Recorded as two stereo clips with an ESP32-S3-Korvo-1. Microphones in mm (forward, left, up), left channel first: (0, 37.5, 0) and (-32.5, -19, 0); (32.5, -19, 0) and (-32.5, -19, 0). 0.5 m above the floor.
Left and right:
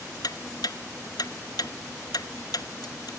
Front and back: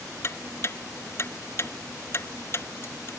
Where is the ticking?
50° left.